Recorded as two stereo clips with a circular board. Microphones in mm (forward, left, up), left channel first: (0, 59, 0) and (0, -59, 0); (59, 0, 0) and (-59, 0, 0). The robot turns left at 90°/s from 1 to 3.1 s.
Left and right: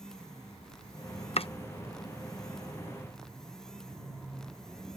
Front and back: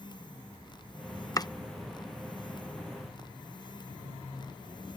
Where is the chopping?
60° left; by 1.5 s 50° left.